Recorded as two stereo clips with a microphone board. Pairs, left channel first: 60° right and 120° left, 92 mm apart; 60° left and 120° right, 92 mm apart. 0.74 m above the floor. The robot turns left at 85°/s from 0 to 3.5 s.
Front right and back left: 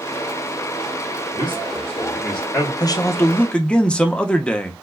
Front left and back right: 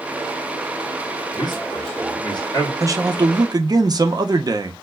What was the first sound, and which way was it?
A man speaking, 110° left.